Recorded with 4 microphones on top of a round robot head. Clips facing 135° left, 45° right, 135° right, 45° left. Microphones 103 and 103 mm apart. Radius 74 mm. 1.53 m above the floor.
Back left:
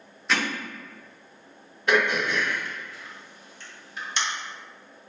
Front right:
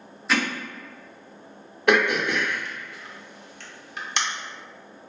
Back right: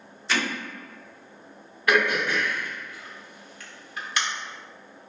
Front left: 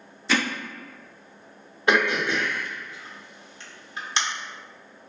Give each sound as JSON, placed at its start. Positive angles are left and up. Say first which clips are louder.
{"t": 0.3, "sound": "hammering", "louder": "front right 2 dB, front left 3 dB", "azimuth_deg": 45, "distance_m": 0.5}
{"t": 1.9, "sound": "throat clearing", "louder": "front right 3 dB, front left 1 dB", "azimuth_deg": -20, "distance_m": 0.6}